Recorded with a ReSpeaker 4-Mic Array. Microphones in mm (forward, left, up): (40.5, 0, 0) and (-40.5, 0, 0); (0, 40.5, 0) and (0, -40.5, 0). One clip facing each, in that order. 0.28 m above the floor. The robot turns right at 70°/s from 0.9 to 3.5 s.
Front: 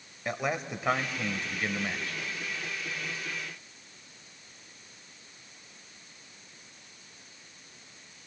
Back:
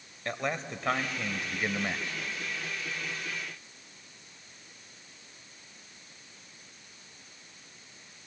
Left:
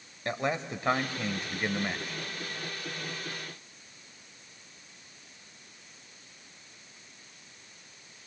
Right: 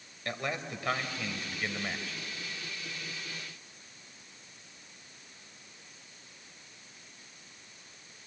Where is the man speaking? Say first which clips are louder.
Front 2 dB, left 5 dB; 75° left, 0.9 m; by 2.2 s 165° left, 0.9 m.